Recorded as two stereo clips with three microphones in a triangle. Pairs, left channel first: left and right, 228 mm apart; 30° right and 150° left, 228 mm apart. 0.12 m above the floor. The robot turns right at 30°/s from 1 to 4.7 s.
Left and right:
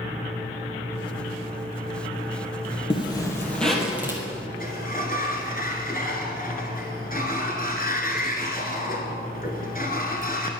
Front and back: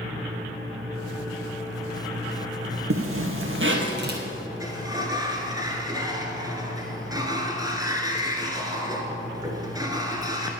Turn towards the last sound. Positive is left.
turn(degrees=85)